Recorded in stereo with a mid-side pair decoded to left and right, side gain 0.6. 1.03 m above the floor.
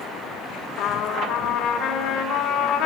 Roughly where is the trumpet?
Left.